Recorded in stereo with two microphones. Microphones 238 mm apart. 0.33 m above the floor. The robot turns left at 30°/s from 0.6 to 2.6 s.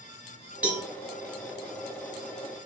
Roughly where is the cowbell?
Centre.